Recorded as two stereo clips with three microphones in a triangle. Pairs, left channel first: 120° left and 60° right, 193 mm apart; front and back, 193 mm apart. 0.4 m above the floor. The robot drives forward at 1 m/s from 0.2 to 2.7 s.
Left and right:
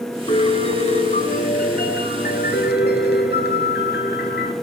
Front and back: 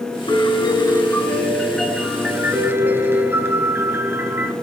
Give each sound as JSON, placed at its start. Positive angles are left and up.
{"t": 0.3, "sound": "a piano", "azimuth_deg": 60, "distance_m": 4.0}